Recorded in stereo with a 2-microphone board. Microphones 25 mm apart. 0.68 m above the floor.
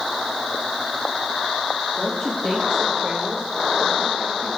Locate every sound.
2.0 s a woman speaking: 35° left (ahead or behind), 1.2 m; by 4.5 s 75° right (ahead or behind), 3 m